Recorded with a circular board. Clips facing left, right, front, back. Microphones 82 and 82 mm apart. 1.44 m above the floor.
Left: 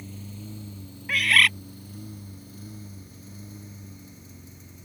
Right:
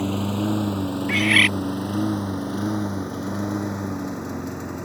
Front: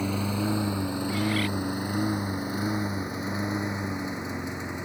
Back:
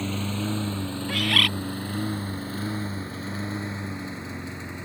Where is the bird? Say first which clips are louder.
Right 1 dB, back 3 dB; straight behind.